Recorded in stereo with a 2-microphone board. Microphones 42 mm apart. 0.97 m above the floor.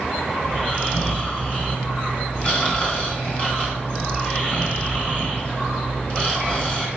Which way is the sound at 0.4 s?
30° left (ahead or behind).